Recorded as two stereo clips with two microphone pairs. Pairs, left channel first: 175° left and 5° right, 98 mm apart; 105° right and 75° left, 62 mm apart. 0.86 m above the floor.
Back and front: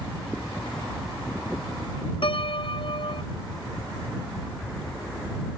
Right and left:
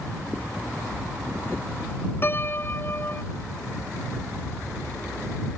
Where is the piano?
155° right.